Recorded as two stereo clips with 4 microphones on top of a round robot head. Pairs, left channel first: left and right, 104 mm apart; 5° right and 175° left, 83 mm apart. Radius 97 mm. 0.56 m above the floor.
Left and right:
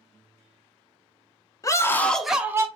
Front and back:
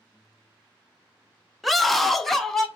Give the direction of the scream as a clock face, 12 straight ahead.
9 o'clock.